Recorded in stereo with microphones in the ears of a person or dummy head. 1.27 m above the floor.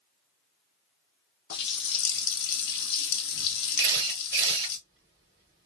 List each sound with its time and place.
1.5 s a running tap: 60° left (ahead or behind), 0.8 m
3.8 s a camera shutter: 20° right (ahead or behind), 1.0 m